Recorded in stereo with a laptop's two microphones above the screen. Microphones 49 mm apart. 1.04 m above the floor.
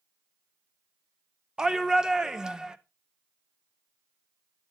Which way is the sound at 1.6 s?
15° right (ahead or behind).